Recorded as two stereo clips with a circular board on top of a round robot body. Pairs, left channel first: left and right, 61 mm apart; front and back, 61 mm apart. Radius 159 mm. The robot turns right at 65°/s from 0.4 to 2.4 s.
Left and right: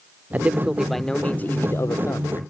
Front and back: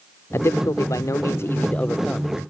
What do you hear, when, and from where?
0.3 s a man speaking: 30° right; by 2.4 s 100° left